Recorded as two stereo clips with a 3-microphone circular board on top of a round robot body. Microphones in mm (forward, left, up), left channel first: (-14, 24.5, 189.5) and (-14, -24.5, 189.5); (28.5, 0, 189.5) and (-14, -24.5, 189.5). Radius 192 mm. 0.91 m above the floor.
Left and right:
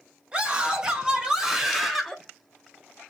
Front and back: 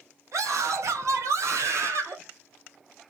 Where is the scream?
160° right, 2.5 m; by 2.2 s straight behind, 1.8 m.